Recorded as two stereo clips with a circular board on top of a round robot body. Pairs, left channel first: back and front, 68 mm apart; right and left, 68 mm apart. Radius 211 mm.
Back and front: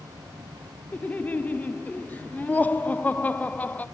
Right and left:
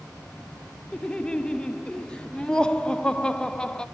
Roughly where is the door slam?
I don't hear a door slam.